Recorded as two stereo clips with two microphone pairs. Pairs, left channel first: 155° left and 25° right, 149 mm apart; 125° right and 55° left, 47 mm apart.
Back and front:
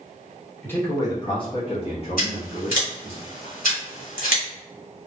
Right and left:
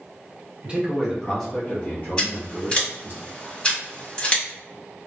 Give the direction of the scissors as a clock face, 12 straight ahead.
6 o'clock.